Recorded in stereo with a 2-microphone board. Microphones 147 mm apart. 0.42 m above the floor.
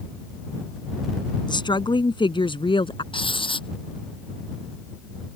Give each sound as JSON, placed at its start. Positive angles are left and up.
{"t": 1.5, "sound": "a woman speaking", "side_deg": 30}
{"t": 3.1, "sound": "writing", "side_deg": 35}